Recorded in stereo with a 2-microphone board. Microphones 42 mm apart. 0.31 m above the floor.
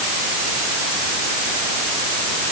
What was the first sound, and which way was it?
Only background noise.